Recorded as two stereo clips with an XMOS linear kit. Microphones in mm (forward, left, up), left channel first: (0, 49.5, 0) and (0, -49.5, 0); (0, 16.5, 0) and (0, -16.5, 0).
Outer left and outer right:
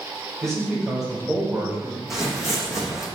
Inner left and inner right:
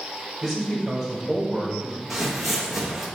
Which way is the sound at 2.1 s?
5° right (ahead or behind).